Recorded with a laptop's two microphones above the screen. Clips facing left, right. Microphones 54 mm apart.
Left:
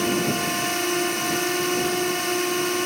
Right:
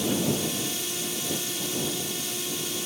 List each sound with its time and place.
0.0 s a drone: 55° left (ahead or behind)